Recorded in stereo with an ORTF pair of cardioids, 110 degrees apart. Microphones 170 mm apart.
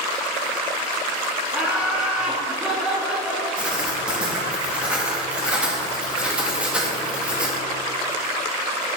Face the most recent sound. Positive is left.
turn(degrees=-5)